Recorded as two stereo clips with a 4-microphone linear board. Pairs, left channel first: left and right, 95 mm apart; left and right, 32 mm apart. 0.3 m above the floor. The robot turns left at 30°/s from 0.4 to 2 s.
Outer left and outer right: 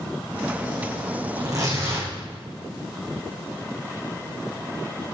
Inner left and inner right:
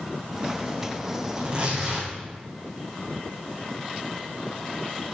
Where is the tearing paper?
40° right (ahead or behind), 7 m; by 2.1 s 20° right (ahead or behind), 7 m.